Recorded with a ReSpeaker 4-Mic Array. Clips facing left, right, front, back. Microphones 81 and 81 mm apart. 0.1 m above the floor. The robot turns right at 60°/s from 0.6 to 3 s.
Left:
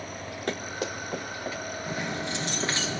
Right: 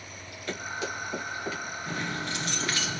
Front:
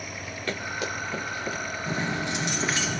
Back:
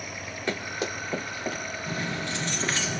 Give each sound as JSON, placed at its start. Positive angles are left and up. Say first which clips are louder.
{"t": 0.5, "sound": "running footsteps", "louder": "left 1 dB, even", "azimuth_deg": 110, "distance_m": 3.5}
{"t": 1.9, "sound": "keys jangling", "louder": "left 1 dB, front 3 dB", "azimuth_deg": 25, "distance_m": 1.2}